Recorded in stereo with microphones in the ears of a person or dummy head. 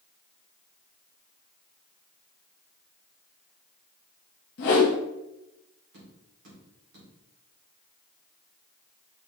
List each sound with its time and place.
4.6 s a whoosh: 45° left (ahead or behind), 0.9 m
5.9 s tapping: 65° right (ahead or behind), 2 m